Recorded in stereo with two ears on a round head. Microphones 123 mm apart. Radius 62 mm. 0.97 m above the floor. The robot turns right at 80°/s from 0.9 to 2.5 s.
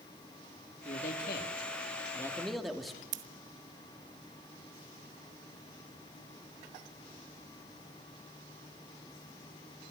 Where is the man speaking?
50° left, 2.5 m; by 3.0 s straight behind, 2.5 m.